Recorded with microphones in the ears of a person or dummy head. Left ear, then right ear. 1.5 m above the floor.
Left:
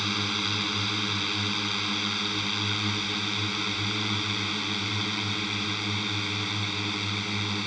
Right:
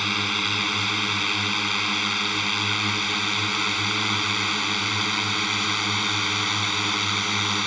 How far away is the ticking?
I don't hear ticking.